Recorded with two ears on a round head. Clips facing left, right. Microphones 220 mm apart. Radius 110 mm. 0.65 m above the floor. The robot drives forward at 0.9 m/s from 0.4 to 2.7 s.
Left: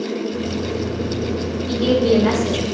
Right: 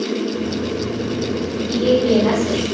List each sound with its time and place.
1.7 s a woman speaking: 50° left (ahead or behind), 3 m; by 2.6 s 40° left (ahead or behind), 4 m